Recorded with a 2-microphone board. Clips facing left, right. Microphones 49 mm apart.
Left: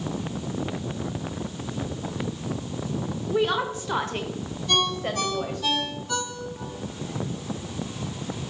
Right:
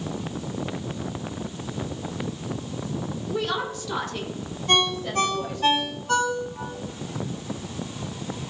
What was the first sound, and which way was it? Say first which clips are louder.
A woman speaking: left 4 dB; 15° left (ahead or behind).